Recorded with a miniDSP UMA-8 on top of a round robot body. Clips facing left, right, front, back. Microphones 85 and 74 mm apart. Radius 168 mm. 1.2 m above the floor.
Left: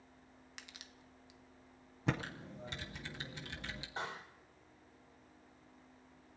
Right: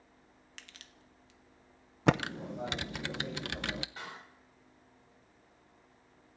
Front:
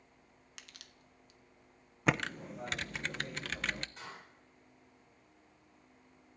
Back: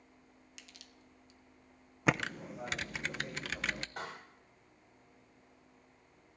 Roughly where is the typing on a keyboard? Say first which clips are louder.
Right 10 dB, even; right.